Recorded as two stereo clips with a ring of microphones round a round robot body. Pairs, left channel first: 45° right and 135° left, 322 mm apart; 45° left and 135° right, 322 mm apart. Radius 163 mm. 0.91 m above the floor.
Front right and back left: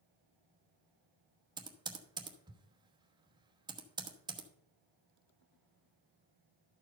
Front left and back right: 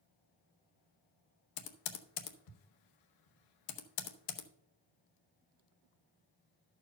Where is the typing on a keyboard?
60° left, 1.0 m.